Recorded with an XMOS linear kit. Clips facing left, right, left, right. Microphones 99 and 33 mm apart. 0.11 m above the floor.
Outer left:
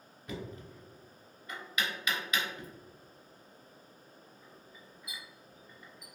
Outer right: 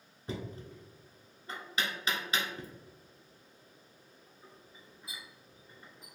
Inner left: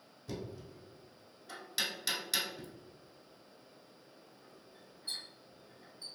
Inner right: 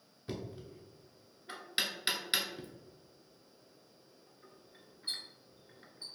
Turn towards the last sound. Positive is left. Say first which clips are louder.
# outer right 1 dB, inner right 1 dB
turn(degrees=-30)  # may be behind; listen again after turning